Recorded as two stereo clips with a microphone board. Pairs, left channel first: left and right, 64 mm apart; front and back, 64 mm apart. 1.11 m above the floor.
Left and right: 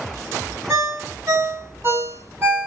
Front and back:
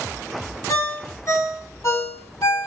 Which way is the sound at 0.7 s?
40° right.